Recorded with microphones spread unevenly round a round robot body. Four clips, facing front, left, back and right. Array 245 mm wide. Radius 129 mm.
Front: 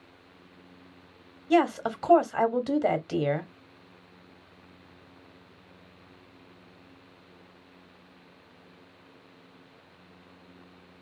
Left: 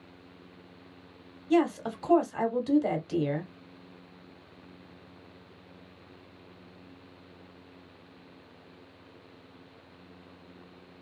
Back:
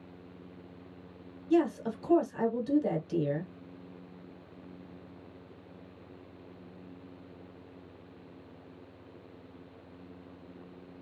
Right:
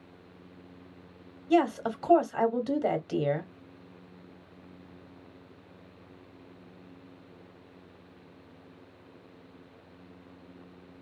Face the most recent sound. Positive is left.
turn(degrees=0)